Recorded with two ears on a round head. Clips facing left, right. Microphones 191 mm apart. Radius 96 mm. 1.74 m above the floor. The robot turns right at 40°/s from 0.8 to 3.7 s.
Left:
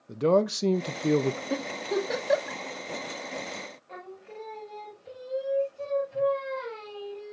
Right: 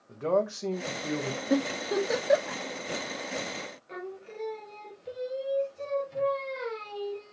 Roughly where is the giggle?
Right.